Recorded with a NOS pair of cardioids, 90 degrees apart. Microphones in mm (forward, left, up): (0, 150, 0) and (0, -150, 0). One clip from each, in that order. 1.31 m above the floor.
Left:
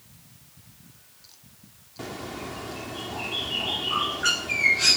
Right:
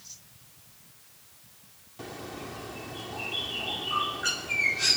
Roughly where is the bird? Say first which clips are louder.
Left 4 dB; ahead left.